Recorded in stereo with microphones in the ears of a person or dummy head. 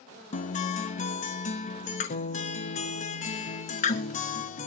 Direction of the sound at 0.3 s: 35° left (ahead or behind).